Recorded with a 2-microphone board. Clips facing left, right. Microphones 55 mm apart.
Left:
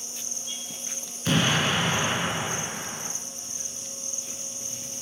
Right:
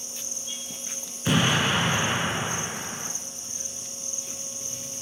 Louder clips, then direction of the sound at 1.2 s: Right 1 dB; 10° right (ahead or behind).